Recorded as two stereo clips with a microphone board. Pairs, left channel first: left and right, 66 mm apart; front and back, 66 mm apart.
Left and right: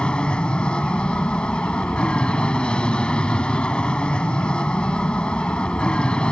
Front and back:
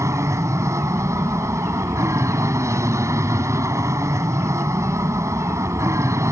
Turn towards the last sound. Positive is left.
turn(degrees=160)